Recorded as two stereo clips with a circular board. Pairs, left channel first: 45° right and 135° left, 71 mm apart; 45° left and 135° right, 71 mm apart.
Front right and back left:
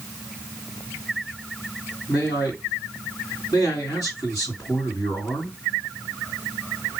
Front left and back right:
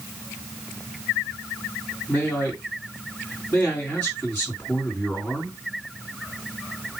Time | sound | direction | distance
2.1 | a man speaking | 25° right | 2.5 m